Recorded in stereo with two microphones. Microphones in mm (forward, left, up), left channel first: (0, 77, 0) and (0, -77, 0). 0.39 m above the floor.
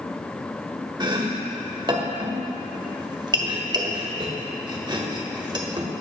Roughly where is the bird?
I don't hear a bird.